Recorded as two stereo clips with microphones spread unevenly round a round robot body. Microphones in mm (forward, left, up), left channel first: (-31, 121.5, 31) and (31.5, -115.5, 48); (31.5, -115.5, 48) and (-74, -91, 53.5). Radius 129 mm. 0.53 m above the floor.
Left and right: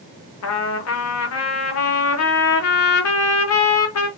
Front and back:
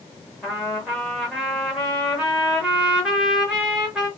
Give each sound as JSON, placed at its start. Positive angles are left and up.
{"t": 0.4, "sound": "a trumpet", "azimuth_deg": 80, "distance_m": 0.7}